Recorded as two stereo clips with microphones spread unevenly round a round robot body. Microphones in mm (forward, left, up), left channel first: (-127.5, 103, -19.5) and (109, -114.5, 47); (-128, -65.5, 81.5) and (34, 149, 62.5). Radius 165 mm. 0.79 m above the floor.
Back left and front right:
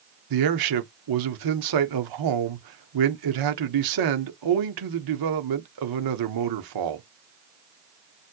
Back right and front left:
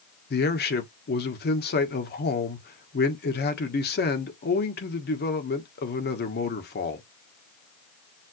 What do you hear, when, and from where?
0.3 s a man speaking: 70° right, 1.6 m